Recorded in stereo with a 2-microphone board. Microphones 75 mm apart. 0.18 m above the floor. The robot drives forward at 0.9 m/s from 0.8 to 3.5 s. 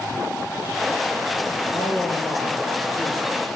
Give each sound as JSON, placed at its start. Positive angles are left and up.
{"t": 1.7, "sound": "a man speaking", "side_deg": 40, "distance_m": 4.5}